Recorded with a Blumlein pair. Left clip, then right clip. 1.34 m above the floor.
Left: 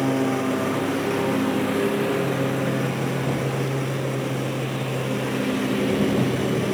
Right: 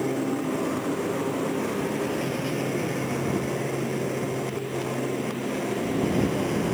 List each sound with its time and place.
0.0 s a lawn mower: 65° left